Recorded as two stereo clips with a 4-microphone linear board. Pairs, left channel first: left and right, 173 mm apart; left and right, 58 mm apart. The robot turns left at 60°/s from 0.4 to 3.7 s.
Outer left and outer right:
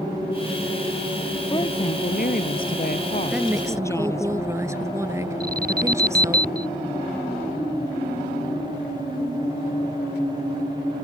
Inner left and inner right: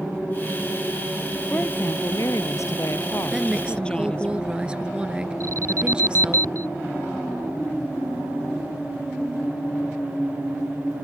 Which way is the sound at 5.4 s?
60° right (ahead or behind).